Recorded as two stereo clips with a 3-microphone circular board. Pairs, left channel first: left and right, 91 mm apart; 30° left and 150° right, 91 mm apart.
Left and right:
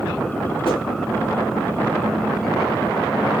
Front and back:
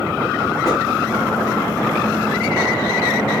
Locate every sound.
0.6 s a whoosh: 80° left, 1.6 m